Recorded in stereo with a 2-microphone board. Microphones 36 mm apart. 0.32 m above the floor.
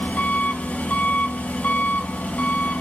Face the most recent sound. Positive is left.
turn(degrees=45)  # may be behind; listen again after turning